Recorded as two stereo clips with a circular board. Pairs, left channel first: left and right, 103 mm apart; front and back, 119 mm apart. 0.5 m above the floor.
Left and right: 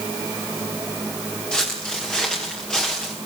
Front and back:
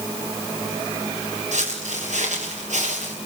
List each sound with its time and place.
1.5 s footsteps: 170° left, 6.5 m; by 3.1 s 175° left, 5 m